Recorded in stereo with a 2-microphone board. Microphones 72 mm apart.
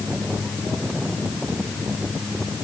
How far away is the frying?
I don't hear frying.